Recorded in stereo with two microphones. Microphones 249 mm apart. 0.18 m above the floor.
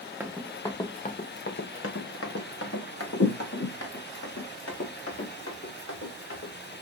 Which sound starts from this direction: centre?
Running footsteps, at 0.2 s.